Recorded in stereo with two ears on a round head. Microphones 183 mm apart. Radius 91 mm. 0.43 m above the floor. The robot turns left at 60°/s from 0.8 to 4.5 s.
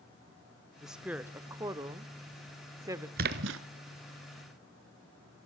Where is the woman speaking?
Centre (ahead or behind), 0.8 m; by 3.1 s 15° right (ahead or behind), 0.8 m.